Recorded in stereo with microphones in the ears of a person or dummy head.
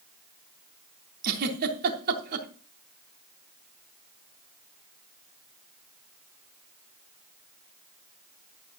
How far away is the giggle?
About 3 m.